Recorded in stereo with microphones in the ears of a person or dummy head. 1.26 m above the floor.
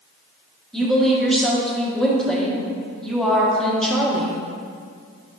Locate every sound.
0.7 s a woman speaking: centre (ahead or behind), 0.9 m